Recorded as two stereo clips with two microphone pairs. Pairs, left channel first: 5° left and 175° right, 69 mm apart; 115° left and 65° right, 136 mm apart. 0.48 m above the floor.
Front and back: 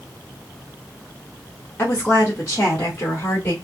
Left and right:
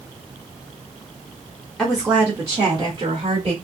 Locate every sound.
1.8 s a woman speaking: 30° left, 0.9 m; by 3.5 s 35° right, 1.3 m